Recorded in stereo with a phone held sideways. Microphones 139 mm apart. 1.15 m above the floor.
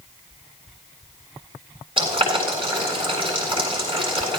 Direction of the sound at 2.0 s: 40° right (ahead or behind).